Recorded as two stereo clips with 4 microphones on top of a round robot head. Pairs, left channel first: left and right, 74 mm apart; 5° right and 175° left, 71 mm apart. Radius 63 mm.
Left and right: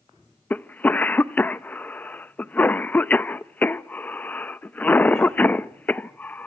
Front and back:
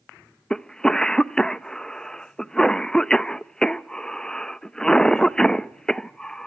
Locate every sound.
0.5 s a cough: 60° left, 0.6 m